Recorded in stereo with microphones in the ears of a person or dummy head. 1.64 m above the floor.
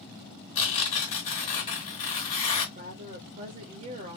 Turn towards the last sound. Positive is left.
turn(degrees=-40)  # may be behind; listen again after turning